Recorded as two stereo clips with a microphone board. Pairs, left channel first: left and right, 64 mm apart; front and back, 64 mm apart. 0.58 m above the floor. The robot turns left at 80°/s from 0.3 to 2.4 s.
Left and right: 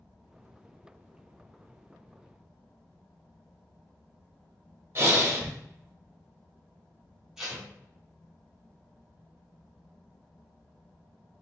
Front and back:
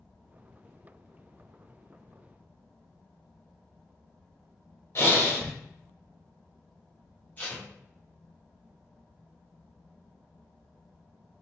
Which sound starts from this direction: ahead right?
Breathing, at 5.0 s.